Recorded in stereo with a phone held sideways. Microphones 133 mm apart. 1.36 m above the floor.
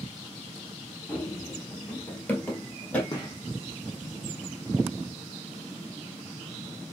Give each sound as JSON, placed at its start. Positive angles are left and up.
{"t": 1.1, "sound": "running footsteps", "side_deg": 10, "distance_m": 1.4}
{"t": 3.1, "sound": "a gunshot", "side_deg": 30, "distance_m": 1.5}